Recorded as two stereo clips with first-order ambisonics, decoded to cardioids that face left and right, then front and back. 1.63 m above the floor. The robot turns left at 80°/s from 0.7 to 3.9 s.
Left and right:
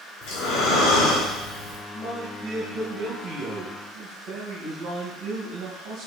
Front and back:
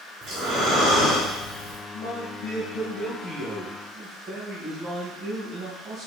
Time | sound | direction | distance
0.2 | breathing | 120° left | 3.5 m
1.9 | a man speaking | 30° left | 2 m